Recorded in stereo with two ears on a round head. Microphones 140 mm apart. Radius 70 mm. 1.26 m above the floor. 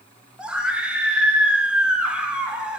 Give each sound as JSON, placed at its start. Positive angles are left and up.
{"t": 0.4, "sound": "a scream", "side_deg": -5, "distance_m": 4.5}